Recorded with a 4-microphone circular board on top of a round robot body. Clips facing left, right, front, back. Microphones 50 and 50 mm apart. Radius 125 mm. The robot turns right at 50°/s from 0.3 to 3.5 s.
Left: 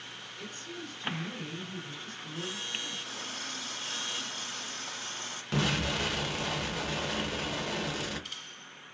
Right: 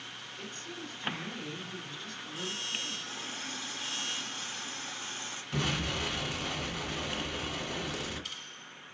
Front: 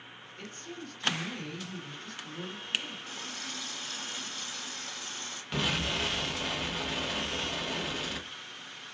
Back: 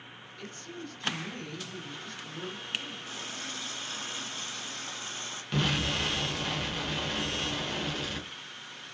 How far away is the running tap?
About 1.6 m.